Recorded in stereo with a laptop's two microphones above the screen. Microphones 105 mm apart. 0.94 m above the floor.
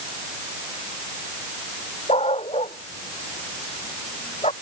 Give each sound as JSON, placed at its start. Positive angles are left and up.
{"t": 2.1, "sound": "a dog barking", "side_deg": 80}